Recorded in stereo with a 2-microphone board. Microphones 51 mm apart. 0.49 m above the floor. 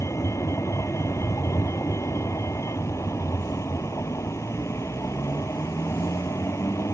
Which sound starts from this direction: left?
A vehicle, at 0.0 s.